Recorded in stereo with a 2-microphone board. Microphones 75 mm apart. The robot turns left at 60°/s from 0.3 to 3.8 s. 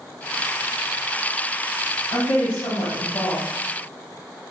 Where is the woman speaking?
140° left, 1.3 m; by 3.5 s 55° left, 1.3 m.